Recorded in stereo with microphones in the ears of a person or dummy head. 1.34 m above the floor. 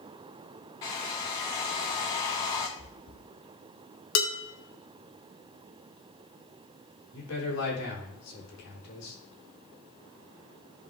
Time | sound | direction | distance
0.8 | a hair dryer | 15° left (ahead or behind) | 0.7 m
2.8 | chewing | 45° left (ahead or behind) | 1.9 m
4.2 | dishes clattering | 80° left | 2.5 m
7.1 | a man speaking | 85° left | 3.5 m